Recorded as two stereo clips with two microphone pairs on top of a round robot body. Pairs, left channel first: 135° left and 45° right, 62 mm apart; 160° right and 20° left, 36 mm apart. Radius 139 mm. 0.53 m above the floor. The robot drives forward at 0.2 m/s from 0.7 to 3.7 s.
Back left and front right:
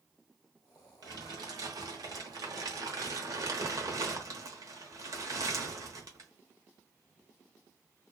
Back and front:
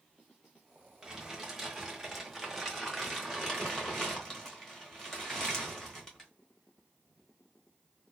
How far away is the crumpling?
About 1.1 m.